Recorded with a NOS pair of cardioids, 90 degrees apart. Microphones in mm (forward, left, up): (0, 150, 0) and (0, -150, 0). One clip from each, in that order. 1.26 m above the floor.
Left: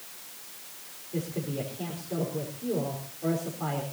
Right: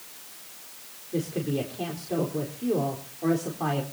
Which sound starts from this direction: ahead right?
A woman speaking, at 1.1 s.